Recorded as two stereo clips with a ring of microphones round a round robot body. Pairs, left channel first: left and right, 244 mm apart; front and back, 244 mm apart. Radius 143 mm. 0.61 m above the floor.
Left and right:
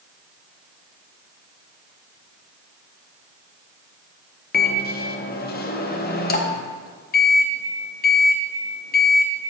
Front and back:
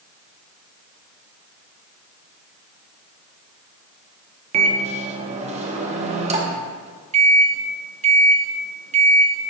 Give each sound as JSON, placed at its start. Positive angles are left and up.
{"t": 4.5, "sound": "a microwave", "azimuth_deg": 125, "distance_m": 0.7}